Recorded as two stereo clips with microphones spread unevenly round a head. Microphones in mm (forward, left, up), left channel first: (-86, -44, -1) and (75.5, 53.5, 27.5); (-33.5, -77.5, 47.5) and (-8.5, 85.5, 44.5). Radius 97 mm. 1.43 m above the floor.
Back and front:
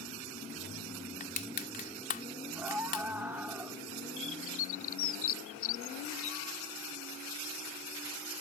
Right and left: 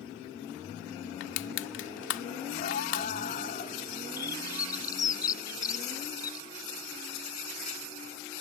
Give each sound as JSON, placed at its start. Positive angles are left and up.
{"t": 1.2, "sound": "crushing", "azimuth_deg": -95}
{"t": 2.5, "sound": "a scream", "azimuth_deg": -50}
{"t": 4.2, "sound": "a bird", "azimuth_deg": -165}